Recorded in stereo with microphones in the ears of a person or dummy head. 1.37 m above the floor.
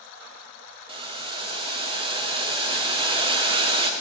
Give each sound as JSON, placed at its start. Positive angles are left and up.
{"t": 0.9, "sound": "boiling", "side_deg": -25, "distance_m": 0.6}